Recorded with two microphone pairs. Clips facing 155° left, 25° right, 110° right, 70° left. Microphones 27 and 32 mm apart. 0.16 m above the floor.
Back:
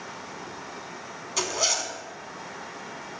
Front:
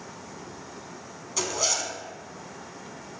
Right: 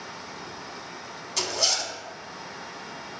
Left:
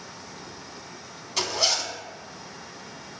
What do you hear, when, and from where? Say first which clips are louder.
1.4 s a zipper: back 1 dB, left 1 dB; 125° left, 0.5 m